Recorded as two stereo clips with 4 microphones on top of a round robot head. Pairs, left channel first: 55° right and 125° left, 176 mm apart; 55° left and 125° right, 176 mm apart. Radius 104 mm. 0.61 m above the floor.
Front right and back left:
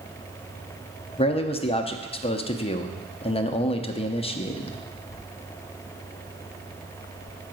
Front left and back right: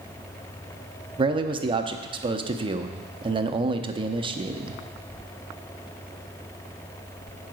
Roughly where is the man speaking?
Right.